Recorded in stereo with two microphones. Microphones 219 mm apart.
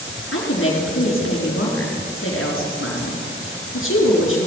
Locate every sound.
0.3 s a woman speaking: 65° left (ahead or behind), 4 m